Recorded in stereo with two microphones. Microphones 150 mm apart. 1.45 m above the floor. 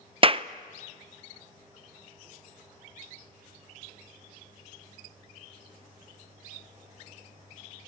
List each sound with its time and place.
0.2 s a clap: 40° right (ahead or behind), 0.6 m